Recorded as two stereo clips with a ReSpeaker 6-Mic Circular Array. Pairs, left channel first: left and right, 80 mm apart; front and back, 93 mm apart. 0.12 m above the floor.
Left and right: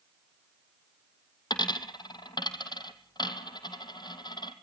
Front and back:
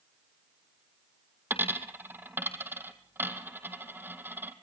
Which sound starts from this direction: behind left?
A dropped coin, at 1.5 s.